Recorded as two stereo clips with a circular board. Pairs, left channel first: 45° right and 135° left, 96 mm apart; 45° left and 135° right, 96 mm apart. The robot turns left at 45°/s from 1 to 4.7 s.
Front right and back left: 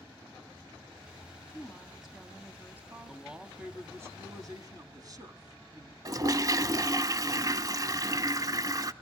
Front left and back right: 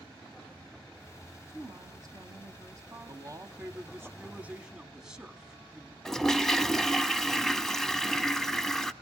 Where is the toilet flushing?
125° left, 0.6 m.